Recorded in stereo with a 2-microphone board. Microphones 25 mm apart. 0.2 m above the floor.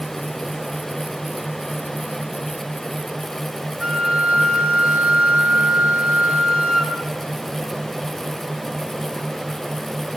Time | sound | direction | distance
3.8 | a flute | 50° right (ahead or behind) | 4 m